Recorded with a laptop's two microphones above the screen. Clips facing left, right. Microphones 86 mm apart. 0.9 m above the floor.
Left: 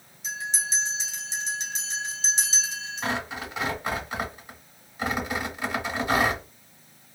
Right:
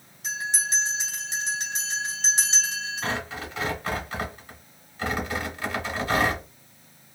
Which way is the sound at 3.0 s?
15° left (ahead or behind).